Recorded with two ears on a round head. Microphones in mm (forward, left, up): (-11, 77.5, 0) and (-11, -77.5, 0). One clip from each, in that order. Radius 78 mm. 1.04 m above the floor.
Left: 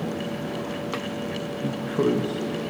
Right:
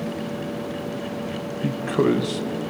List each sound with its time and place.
1.6 s a man speaking: 60° right (ahead or behind), 0.6 m